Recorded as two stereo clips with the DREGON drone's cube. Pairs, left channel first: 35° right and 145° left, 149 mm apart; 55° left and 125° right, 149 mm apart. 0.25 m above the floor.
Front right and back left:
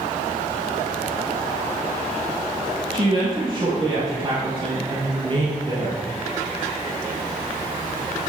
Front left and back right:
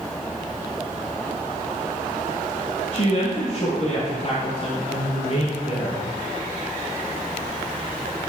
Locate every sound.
2.9 s a woman speaking: 95° left, 5.5 m